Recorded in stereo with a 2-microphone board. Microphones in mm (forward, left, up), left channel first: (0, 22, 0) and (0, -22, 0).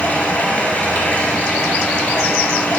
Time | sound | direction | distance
0.0 | running water | 30° left (ahead or behind) | 1.4 m